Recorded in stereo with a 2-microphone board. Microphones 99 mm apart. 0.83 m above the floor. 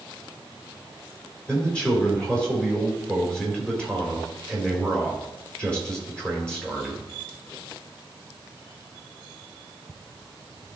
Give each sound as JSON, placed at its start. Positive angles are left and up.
{"t": 1.5, "sound": "a man speaking", "side_deg": 10, "distance_m": 3.0}